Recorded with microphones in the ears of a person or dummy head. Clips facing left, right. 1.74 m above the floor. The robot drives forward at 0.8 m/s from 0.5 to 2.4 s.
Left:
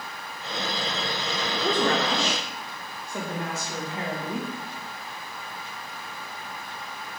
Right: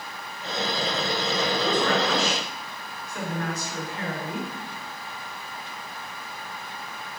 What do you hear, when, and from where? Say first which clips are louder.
1.5 s a woman speaking: left 1 dB; 35° left (ahead or behind), 1.4 m; by 4.5 s 25° left (ahead or behind), 2.0 m